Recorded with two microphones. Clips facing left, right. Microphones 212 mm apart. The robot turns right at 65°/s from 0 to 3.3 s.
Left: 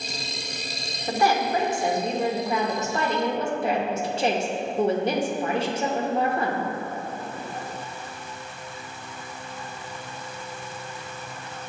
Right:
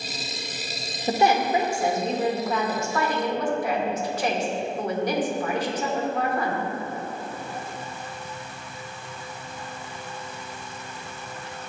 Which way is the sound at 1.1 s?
25° right (ahead or behind).